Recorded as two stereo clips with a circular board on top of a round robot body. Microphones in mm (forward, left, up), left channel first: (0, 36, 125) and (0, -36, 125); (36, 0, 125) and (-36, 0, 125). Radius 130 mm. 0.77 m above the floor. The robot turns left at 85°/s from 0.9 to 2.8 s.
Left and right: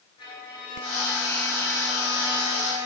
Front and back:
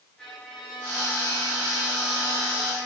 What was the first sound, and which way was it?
A violin, 75° left.